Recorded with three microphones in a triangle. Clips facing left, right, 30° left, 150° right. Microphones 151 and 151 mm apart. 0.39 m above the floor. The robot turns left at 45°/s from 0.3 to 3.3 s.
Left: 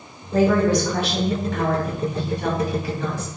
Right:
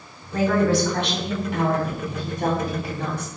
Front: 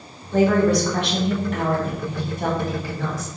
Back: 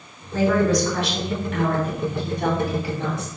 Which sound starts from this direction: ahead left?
A woman speaking, at 0.3 s.